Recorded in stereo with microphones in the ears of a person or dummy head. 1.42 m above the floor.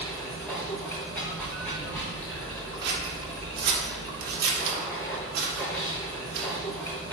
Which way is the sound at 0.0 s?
5° left (ahead or behind).